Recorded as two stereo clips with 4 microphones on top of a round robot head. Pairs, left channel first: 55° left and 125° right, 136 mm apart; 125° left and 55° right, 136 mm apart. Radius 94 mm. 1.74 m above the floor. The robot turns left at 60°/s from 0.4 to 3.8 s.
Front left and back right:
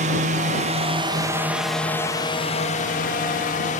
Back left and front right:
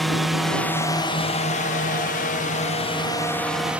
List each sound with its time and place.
0.0 s a drone: 145° right; by 3.8 s 25° left